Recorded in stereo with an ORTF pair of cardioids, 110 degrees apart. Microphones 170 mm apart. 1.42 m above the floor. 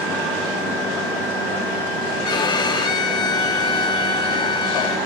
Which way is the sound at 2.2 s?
25° left.